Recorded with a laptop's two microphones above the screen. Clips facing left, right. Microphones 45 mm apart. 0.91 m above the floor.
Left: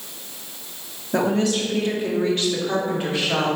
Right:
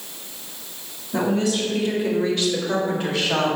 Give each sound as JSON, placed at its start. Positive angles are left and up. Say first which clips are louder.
{"t": 1.1, "sound": "a woman speaking", "louder": "left 1 dB", "side_deg": 55, "distance_m": 1.9}